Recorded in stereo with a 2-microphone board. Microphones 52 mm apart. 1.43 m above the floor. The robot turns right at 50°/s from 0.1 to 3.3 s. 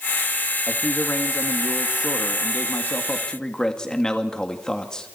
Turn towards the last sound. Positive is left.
turn(degrees=165)